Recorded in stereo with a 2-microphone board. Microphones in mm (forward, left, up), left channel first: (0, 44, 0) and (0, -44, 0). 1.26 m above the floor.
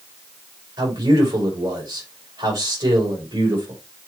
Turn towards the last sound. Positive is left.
turn(degrees=-45)  # may be behind; listen again after turning